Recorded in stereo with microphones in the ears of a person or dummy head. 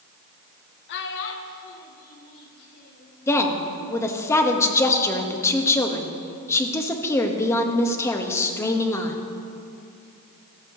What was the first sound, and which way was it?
A child speaking, 60° left (ahead or behind).